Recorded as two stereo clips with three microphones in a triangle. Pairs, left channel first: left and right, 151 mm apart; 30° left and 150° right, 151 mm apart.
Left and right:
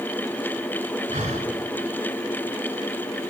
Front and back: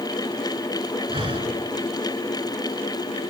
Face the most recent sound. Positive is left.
turn(degrees=-115)